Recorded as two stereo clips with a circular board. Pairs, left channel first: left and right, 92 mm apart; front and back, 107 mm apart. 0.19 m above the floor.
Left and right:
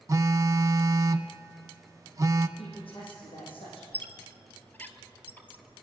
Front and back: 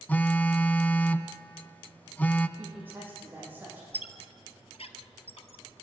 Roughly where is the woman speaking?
Left.